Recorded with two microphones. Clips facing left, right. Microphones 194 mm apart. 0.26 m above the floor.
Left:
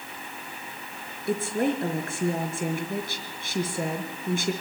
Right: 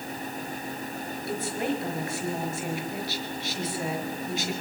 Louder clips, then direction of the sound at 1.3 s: Left 5 dB; 55° left (ahead or behind).